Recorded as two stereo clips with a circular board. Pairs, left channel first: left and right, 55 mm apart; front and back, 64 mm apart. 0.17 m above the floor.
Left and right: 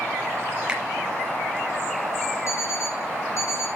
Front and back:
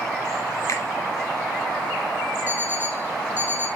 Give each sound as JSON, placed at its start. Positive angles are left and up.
{"t": 0.7, "sound": "a finger snap", "azimuth_deg": -20, "distance_m": 2.5}
{"t": 2.5, "sound": "an alarm clock", "azimuth_deg": 120, "distance_m": 5.0}